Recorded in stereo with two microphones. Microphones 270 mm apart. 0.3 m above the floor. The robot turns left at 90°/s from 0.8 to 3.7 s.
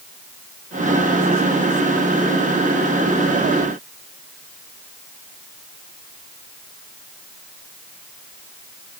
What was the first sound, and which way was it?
Only background noise.